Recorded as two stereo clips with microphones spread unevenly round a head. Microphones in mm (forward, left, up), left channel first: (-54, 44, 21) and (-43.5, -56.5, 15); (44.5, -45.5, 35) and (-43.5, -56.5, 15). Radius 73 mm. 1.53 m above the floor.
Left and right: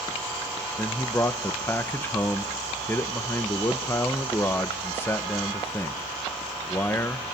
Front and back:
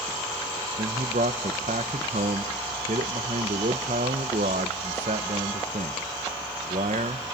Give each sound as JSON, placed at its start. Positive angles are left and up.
{"t": 0.8, "sound": "a man speaking", "azimuth_deg": 160, "distance_m": 0.9}